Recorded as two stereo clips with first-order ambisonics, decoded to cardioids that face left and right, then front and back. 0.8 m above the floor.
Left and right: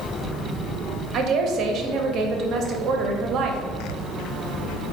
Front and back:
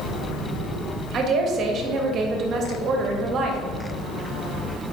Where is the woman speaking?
135° right, 0.6 m.